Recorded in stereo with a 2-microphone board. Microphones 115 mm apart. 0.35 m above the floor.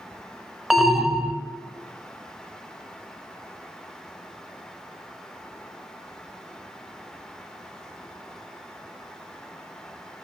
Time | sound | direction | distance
0.7 | an alarm | centre (ahead or behind) | 0.8 m